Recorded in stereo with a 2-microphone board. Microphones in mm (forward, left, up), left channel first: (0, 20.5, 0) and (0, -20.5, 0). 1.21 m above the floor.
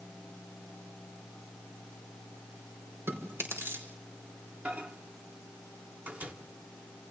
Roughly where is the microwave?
Right.